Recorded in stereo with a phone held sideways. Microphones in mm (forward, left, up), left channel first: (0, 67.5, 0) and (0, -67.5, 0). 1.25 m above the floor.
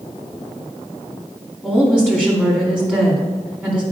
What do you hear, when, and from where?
1.6 s a woman speaking: 10° left (ahead or behind), 2.5 m